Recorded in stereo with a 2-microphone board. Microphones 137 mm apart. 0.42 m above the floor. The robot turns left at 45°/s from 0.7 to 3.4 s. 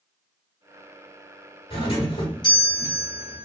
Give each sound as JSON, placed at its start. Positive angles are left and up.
{"t": 1.7, "sound": "a doorbell", "azimuth_deg": 95, "distance_m": 2.0}